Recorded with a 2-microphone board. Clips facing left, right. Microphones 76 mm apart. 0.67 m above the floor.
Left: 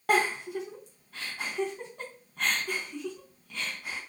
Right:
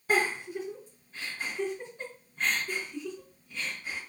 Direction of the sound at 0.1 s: 85° left.